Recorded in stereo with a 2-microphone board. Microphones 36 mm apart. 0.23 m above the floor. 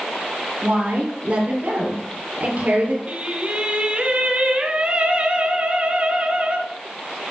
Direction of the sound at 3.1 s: 35° right (ahead or behind).